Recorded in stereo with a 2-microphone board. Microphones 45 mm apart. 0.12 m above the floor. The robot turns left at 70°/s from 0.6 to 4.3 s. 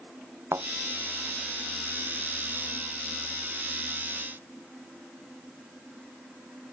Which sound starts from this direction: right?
A thud, at 0.5 s.